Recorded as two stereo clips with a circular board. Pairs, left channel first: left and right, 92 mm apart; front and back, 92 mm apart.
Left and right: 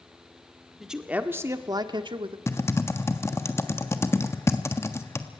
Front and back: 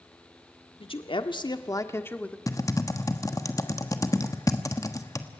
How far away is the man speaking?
About 1.7 m.